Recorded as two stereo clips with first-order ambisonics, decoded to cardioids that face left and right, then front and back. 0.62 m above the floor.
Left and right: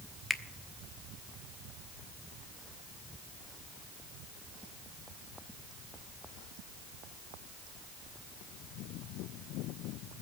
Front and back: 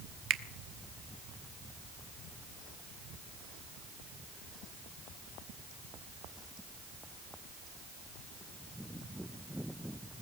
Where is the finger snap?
175° left, 0.9 m.